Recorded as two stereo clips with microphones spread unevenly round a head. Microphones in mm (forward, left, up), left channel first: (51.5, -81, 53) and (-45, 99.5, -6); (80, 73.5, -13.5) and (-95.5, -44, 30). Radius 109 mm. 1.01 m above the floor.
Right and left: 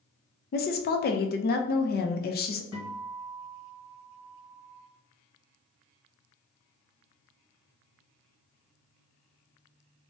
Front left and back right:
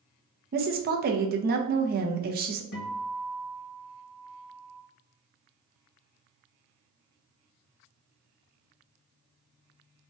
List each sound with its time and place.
0.5 s a woman speaking: 105° right, 0.5 m
2.7 s a guitar: 5° right, 1.4 m